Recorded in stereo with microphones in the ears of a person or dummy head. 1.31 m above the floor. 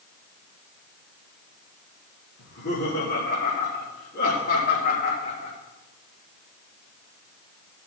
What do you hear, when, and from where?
2.4 s laughter: 70° left (ahead or behind), 3 m; by 5.5 s 45° left (ahead or behind), 4 m